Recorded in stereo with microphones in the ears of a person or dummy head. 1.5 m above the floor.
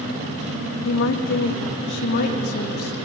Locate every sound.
0.8 s a woman speaking: 70° left (ahead or behind), 1.7 m; by 2.9 s 50° left (ahead or behind), 3 m